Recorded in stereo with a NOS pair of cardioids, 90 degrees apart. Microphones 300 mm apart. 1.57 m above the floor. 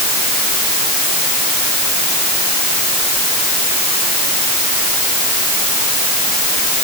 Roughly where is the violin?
I don't hear a violin.